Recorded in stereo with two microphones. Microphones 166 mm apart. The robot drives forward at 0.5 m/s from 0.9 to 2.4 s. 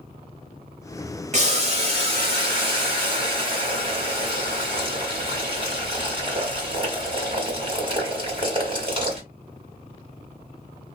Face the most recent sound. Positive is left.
turn(degrees=-30)  # may be behind; listen again after turning